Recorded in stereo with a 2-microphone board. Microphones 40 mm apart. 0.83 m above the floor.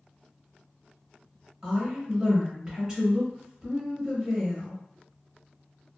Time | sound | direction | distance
1.6 | a woman speaking | 10° right (ahead or behind) | 0.8 m